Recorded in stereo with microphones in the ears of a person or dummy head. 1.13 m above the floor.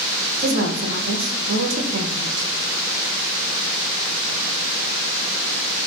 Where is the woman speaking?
50° right (ahead or behind), 0.5 m.